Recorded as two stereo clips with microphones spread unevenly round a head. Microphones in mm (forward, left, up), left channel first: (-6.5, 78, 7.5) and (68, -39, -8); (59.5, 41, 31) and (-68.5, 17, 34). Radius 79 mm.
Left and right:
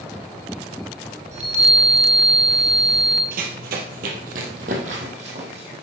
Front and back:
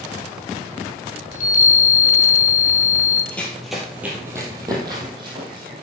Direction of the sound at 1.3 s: 25° right.